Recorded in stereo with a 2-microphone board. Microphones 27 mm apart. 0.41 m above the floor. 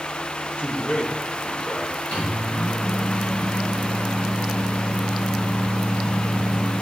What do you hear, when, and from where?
0.6 s a man speaking: 70° left (ahead or behind), 3 m; by 1.9 s 60° left (ahead or behind), 4.5 m
2.1 s a microwave: 80° left, 4 m